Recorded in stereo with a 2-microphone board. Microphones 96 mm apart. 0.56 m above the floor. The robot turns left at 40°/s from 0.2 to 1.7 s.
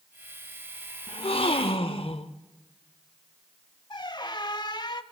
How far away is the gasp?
About 0.8 m.